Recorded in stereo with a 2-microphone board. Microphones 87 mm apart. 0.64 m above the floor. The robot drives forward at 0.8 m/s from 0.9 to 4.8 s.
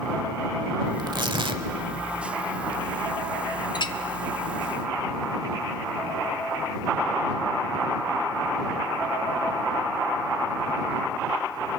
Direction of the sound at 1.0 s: 55° right (ahead or behind).